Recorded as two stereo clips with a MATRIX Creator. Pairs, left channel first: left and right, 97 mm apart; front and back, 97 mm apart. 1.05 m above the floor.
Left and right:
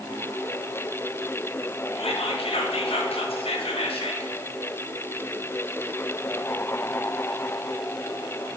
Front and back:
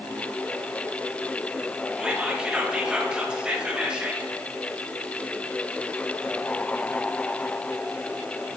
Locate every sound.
2.0 s whispering: 100° left, 0.7 m